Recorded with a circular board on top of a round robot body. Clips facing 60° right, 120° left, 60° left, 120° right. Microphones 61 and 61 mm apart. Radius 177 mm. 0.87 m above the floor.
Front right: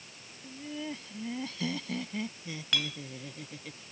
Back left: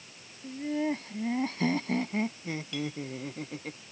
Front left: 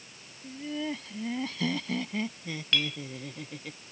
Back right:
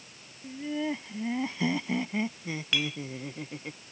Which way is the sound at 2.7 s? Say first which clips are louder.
Front right 3 dB, front left 1 dB; 40° right.